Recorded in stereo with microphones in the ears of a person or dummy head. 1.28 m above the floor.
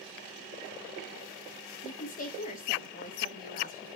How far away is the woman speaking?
About 1.4 m.